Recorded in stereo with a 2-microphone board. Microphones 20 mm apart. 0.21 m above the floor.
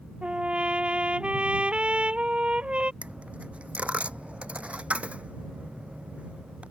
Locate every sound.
0.2 s a trumpet: 65° right (ahead or behind)
3.0 s a dropped coin: 80° right